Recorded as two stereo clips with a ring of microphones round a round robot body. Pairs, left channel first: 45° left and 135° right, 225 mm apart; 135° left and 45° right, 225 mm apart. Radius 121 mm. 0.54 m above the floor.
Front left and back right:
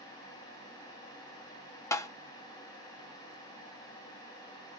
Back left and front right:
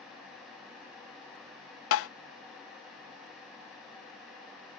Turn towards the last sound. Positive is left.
turn(degrees=120)